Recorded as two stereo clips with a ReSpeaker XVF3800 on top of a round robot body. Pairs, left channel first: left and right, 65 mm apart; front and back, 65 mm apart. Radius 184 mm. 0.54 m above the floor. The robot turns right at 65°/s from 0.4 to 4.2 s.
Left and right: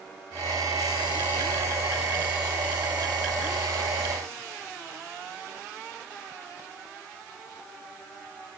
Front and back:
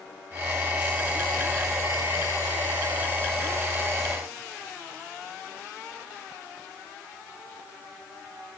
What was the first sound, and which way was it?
Only background noise.